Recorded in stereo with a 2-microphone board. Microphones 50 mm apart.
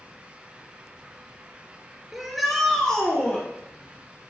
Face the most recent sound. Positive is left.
turn(degrees=30)  # may be behind; listen again after turning